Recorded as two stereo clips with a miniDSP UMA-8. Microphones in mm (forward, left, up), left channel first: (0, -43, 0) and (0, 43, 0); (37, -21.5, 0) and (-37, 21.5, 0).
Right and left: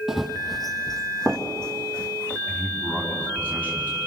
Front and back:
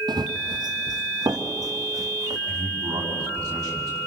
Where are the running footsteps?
175° left, 1.4 m; by 2.4 s 165° right, 3 m.